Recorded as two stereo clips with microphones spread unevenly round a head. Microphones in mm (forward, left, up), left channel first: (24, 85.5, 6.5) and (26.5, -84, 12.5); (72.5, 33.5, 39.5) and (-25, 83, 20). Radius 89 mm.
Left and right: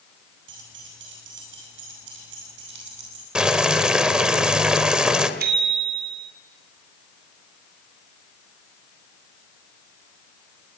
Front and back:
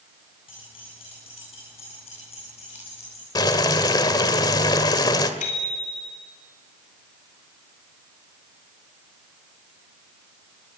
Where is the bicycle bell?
65° right, 4 m.